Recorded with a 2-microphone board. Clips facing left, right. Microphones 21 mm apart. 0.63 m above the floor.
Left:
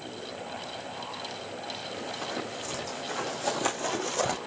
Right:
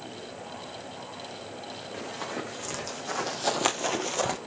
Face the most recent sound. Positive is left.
turn(degrees=5)  # may be behind; listen again after turning